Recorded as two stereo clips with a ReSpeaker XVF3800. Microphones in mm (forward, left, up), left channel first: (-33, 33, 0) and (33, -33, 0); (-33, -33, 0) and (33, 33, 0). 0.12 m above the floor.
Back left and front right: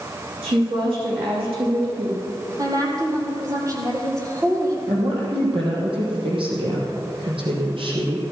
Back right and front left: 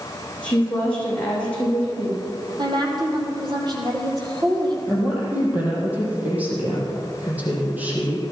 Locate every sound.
0.4 s a woman speaking: 60° right, 7.5 m
2.6 s a woman speaking: 5° left, 4 m
4.9 s a woman speaking: 30° right, 4.5 m